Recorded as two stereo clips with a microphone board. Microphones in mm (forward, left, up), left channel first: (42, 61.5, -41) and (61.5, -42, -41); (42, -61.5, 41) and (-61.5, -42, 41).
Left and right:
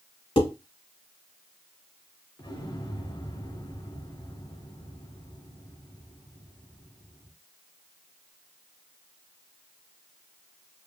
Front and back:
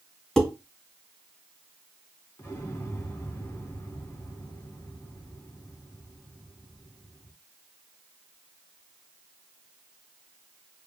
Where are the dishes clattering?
75° left, 2.5 m.